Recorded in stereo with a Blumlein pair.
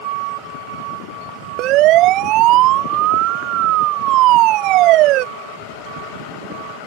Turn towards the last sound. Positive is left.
turn(degrees=-40)